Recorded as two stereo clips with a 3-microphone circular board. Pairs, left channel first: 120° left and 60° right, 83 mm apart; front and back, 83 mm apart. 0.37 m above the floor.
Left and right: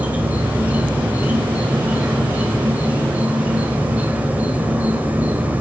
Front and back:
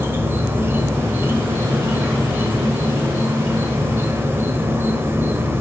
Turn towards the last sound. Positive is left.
turn(degrees=-125)